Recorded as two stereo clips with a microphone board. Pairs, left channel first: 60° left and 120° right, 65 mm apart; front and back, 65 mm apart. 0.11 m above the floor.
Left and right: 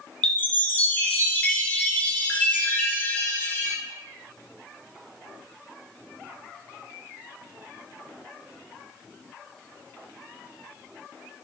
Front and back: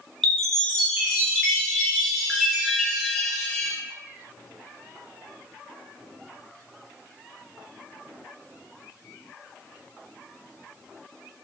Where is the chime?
80° left, 0.7 m.